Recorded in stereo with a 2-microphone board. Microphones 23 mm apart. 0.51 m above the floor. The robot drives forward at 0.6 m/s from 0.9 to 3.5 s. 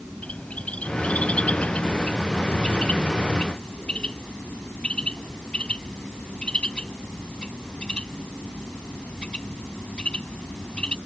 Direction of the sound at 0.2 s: 70° left (ahead or behind).